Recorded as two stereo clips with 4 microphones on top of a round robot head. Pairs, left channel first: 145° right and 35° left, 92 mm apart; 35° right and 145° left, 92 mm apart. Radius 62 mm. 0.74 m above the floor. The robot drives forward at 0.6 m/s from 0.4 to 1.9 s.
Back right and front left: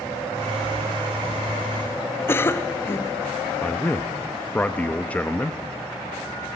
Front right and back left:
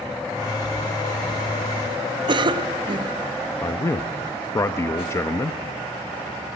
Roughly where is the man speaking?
Right.